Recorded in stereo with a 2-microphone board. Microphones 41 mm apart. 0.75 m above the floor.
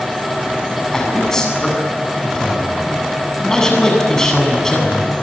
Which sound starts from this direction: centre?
A man speaking, at 0.9 s.